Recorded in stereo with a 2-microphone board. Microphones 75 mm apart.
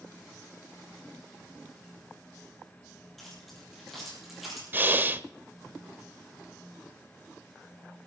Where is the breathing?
25° right (ahead or behind), 0.5 m.